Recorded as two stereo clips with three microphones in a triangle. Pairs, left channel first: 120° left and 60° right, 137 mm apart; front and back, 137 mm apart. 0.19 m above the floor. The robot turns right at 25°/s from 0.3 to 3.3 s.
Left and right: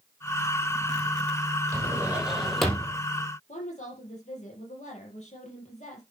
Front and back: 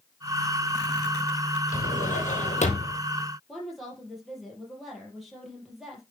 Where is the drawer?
10° left, 2.5 m; by 3.0 s 40° left, 2.5 m.